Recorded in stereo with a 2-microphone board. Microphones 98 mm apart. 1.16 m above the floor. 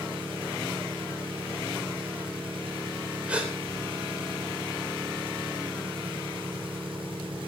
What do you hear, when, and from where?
0.0 s an engine running: 60° right (ahead or behind), 4 m
3.3 s a gasp: 10° right (ahead or behind), 3.5 m